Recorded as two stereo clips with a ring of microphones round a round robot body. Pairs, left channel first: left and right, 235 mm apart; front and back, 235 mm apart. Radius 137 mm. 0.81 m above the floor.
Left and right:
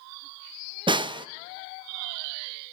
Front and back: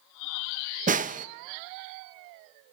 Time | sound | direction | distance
0.9 | a snare drum | 150° right | 0.7 m